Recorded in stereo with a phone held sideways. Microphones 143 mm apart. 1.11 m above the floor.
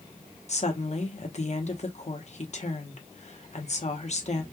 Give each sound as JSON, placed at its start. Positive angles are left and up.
{"t": 0.5, "sound": "a woman speaking", "side_deg": 50, "distance_m": 1.0}